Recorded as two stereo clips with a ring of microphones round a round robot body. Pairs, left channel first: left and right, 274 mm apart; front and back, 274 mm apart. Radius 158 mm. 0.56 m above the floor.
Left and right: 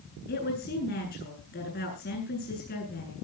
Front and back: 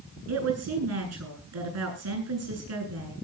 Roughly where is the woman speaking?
Behind left.